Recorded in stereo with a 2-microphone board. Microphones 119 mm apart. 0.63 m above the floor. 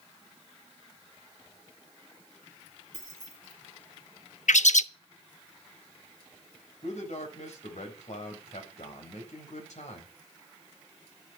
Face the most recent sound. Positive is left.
turn(degrees=75)  # may be behind; listen again after turning